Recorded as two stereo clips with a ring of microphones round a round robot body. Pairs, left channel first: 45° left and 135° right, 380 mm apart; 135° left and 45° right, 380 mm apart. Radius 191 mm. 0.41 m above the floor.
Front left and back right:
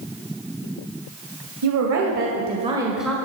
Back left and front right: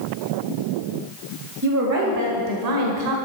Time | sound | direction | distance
1.6 | a woman speaking | 100° right | 2 m